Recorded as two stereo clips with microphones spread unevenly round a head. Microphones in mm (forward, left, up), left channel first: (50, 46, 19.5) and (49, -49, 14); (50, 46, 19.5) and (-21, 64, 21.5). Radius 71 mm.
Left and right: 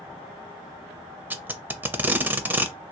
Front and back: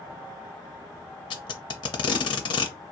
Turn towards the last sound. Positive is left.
turn(degrees=-20)